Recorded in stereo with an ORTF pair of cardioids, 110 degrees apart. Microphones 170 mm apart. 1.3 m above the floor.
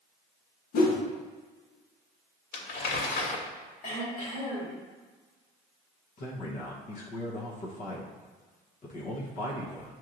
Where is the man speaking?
50° left, 1.0 m.